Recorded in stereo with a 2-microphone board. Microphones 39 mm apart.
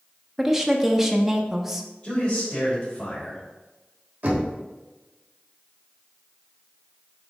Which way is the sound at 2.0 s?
35° left (ahead or behind).